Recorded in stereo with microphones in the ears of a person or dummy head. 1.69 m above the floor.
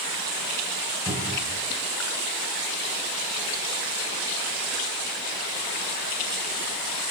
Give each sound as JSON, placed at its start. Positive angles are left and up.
{"t": 1.1, "sound": "a cupboard door", "side_deg": -10, "distance_m": 2.5}